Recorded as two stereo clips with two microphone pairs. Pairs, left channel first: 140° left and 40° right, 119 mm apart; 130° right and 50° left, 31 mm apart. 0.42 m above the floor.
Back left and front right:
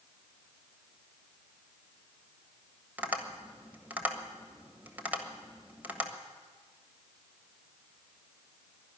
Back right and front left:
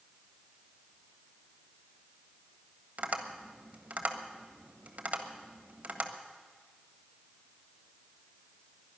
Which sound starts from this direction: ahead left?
Tapping, at 3.0 s.